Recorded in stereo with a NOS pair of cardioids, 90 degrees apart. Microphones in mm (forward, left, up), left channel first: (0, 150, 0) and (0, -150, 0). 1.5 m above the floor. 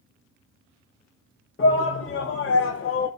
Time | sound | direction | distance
1.6 | a shout | 40° left | 2 m